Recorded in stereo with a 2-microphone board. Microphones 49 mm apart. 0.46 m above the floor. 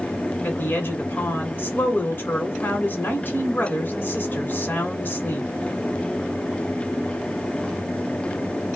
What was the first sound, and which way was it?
A woman speaking, 45° left (ahead or behind).